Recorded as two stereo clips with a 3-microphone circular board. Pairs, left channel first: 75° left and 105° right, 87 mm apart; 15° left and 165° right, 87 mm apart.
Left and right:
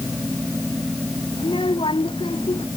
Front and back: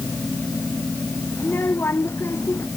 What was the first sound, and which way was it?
A child speaking, 80° left.